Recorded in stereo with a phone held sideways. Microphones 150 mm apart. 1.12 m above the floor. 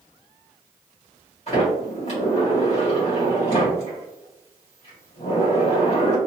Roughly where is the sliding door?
Left.